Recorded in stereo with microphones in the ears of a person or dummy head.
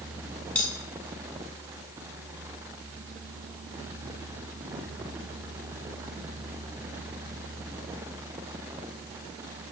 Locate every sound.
0.6 s cutlery clinking: 5° left (ahead or behind), 3.5 m